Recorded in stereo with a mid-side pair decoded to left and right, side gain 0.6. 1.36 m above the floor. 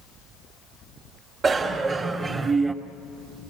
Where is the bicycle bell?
40° right, 3.5 m; by 2.7 s 25° right, 2.5 m.